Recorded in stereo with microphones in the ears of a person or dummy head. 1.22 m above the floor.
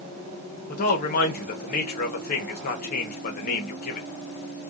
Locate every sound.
0.7 s a man speaking: 55° left (ahead or behind), 0.9 m